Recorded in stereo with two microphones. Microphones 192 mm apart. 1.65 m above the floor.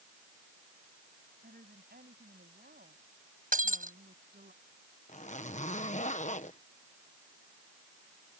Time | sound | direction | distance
1.4 | a woman speaking | 55° right (ahead or behind) | ?
3.5 | breaking glass | 50° right (ahead or behind) | ?
5.1 | a zipper | 40° left (ahead or behind) | ?